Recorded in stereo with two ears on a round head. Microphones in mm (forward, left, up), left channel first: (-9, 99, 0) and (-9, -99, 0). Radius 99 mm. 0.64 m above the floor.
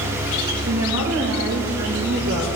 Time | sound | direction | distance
0.7 | a woman speaking | 75° right (ahead or behind) | 2 m